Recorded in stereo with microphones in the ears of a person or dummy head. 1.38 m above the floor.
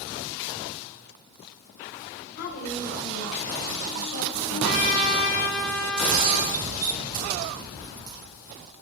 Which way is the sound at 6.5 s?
25° right (ahead or behind).